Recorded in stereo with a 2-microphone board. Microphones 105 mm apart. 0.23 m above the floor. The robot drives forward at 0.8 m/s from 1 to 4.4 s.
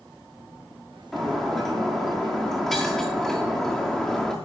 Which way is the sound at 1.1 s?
Centre (ahead or behind).